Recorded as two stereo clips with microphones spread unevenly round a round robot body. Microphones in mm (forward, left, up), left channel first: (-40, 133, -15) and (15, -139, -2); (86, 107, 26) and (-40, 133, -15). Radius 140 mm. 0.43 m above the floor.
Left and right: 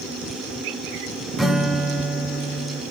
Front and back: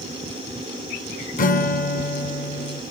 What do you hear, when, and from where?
1.4 s a guitar: 10° left, 0.7 m